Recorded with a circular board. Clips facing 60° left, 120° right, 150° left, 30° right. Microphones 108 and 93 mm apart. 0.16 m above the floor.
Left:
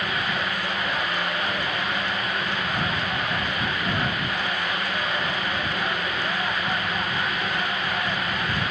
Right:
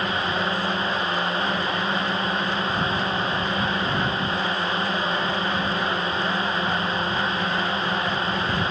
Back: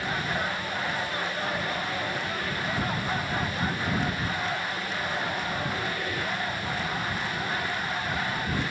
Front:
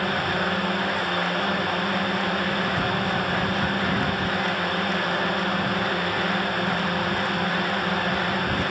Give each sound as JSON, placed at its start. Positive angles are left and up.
{"t": 0.0, "sound": "a drone", "azimuth_deg": -60}